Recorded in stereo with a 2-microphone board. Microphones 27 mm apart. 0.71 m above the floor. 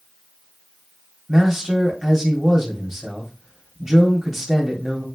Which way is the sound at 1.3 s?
20° right (ahead or behind).